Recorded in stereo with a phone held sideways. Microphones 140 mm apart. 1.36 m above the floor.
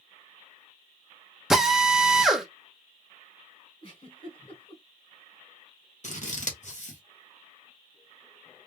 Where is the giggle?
40° left (ahead or behind), 2.5 m.